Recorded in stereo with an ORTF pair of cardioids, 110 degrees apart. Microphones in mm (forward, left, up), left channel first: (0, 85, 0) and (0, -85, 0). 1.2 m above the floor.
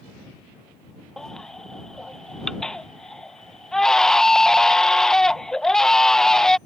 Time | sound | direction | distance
1.2 | a baby crying | 5° left | ?